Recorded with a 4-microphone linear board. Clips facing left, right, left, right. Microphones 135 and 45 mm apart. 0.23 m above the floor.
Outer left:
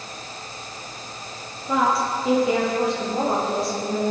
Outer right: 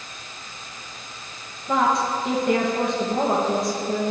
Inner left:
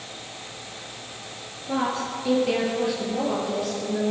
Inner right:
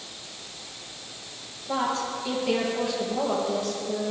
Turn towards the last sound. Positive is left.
turn(degrees=0)  # may be behind; listen again after turning